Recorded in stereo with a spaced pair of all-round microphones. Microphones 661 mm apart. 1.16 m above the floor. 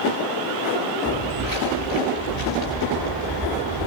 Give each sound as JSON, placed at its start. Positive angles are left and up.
{"t": 1.1, "sound": "footsteps", "side_deg": 30, "distance_m": 9.0}